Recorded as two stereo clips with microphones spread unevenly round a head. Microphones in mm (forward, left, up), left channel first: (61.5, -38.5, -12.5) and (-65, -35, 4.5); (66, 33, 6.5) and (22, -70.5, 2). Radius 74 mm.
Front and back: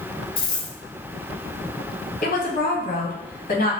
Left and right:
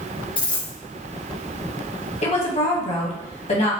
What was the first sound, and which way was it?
A dropped coin, 50° left.